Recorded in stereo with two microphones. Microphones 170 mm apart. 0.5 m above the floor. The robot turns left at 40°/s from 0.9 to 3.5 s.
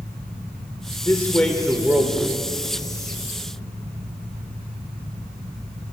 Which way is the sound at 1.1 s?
20° left.